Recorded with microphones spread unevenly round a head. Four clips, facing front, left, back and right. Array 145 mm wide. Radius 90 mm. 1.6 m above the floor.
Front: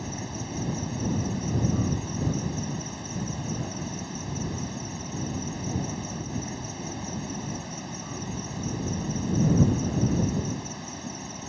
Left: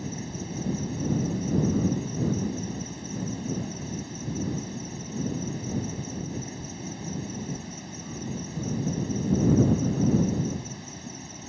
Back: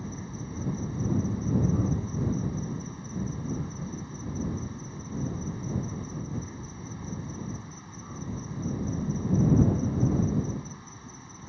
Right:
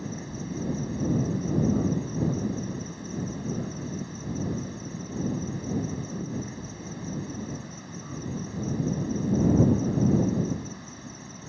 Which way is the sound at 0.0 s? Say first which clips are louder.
Left 1 dB, front 3 dB; 25° right.